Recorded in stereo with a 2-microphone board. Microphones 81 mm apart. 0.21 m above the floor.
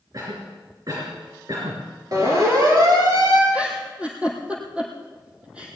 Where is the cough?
50° right (ahead or behind), 3.5 m.